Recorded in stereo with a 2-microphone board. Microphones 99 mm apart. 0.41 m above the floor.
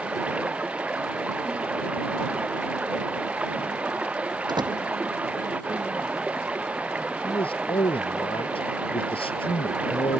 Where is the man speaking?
65° left (ahead or behind).